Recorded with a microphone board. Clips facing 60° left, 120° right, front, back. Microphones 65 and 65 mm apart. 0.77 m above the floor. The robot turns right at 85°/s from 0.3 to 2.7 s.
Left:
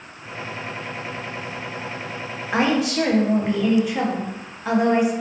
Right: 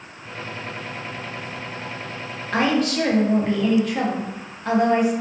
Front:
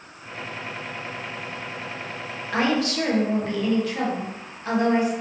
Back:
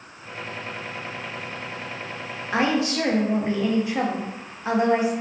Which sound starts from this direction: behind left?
A woman speaking, at 2.5 s.